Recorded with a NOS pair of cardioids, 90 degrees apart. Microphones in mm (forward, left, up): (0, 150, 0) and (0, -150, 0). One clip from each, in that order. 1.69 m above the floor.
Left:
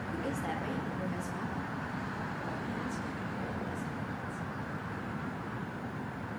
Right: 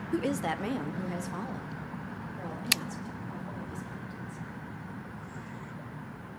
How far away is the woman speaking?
About 0.5 m.